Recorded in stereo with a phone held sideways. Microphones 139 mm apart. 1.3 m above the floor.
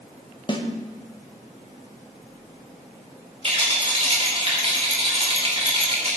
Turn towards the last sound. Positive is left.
turn(degrees=-45)  # may be behind; listen again after turning